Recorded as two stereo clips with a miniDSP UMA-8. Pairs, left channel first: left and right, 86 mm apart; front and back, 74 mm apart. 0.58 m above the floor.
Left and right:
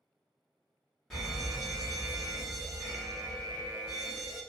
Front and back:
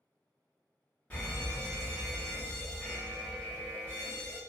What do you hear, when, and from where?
1.1 s a fire alarm: 20° left, 1.9 m